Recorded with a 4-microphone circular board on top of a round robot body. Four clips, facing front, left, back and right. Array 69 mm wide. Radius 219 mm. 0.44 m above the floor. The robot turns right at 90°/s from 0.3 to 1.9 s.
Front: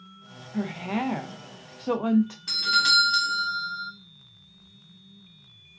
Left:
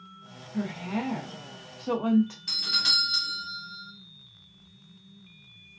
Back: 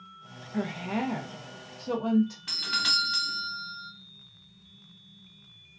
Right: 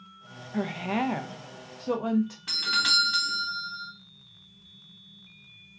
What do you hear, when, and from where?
0.5 s a woman speaking: 110° right, 0.9 m; by 2.4 s 15° left, 0.9 m
2.5 s a doorbell: 110° right, 1.3 m